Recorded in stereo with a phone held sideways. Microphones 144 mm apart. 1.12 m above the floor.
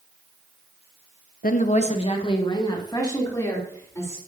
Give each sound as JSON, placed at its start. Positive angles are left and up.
{"t": 1.4, "sound": "a woman speaking", "side_deg": 65, "distance_m": 0.8}